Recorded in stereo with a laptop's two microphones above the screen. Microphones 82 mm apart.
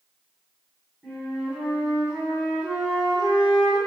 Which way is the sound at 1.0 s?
15° right (ahead or behind).